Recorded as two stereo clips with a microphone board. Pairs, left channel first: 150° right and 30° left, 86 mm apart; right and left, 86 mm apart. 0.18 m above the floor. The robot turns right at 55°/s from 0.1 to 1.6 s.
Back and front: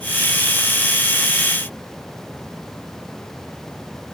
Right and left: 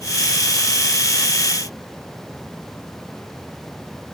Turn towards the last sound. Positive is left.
No sound to turn to.